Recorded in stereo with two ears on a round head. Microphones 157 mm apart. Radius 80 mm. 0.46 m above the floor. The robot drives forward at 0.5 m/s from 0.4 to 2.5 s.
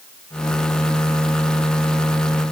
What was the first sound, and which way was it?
Only background noise.